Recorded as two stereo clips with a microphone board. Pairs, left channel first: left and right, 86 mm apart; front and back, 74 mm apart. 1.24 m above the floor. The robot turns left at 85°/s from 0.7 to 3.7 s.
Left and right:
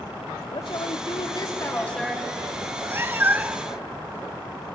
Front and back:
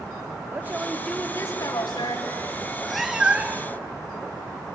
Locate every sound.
0.5 s a woman speaking: 115° left, 3.5 m; by 2.5 s 40° right, 3.5 m
2.6 s a cat meowing: 65° right, 0.5 m; by 3.8 s 155° right, 0.5 m